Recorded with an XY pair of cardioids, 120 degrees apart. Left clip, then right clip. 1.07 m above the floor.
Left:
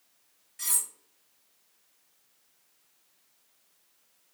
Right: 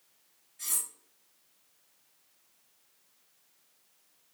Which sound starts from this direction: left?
Cutlery clinking, at 0.6 s.